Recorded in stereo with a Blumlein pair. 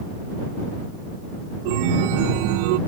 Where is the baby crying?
No baby crying in this recording.